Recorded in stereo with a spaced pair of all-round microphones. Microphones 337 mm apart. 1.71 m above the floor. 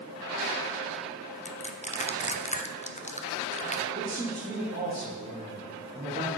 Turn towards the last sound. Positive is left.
turn(degrees=-25)  # may be behind; listen again after turning